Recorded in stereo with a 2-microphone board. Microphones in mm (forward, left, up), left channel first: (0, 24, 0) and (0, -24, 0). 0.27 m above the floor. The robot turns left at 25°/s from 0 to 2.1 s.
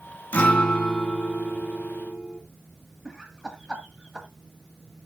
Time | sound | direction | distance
0.3 | a guitar | 35° left | 1.7 m
3.0 | laughter | 15° right (ahead or behind) | 1.7 m